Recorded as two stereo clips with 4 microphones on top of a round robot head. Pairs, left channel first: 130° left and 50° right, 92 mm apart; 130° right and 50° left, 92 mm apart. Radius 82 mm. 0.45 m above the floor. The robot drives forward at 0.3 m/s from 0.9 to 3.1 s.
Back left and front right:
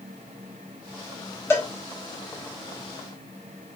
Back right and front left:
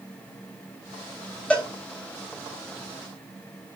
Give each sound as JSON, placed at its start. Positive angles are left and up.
{"t": 1.5, "sound": "a cowbell", "azimuth_deg": 165, "distance_m": 1.3}